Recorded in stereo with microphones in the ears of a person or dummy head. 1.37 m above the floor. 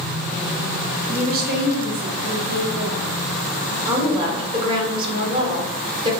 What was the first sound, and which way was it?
A woman speaking, 35° right (ahead or behind).